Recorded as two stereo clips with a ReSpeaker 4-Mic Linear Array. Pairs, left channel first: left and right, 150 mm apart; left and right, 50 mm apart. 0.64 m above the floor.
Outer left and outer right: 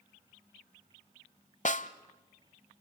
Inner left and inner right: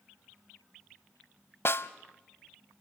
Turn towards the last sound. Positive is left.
turn(degrees=55)  # may be behind; listen again after turning